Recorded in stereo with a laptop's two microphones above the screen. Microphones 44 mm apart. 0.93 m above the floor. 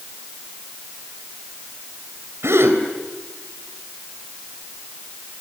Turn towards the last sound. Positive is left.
turn(degrees=-80)